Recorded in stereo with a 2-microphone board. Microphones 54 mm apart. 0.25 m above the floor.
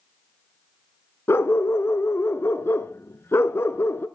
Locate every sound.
1.3 s a dog barking: 45° left (ahead or behind), 1.2 m